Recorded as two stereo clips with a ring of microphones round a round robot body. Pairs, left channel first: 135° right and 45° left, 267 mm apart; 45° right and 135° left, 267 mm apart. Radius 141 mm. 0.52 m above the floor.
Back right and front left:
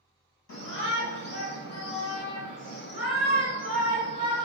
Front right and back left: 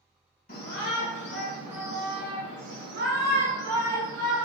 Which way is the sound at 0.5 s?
105° right.